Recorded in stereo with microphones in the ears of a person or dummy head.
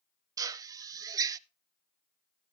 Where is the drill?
20° right (ahead or behind), 0.7 m.